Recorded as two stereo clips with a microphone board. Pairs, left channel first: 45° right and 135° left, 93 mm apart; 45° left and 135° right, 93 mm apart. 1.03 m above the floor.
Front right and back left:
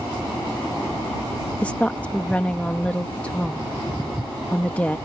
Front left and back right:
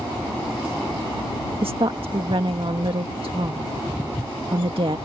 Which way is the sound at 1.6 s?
120° right.